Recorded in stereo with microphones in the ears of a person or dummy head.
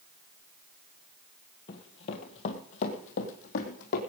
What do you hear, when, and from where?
1.7 s running footsteps: 25° left (ahead or behind), 1.7 m; by 4.0 s 50° left (ahead or behind), 3 m